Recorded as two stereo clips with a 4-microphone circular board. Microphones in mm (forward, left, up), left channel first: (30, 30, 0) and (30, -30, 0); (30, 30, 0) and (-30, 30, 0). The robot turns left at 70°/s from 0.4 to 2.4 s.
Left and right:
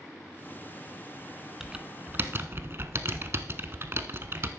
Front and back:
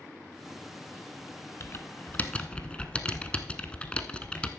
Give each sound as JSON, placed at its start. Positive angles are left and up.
{"t": 1.6, "sound": "typing on a keyboard", "azimuth_deg": -10, "distance_m": 0.6}